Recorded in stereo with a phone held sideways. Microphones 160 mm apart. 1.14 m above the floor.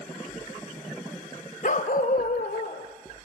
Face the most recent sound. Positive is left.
turn(degrees=70)  # may be behind; listen again after turning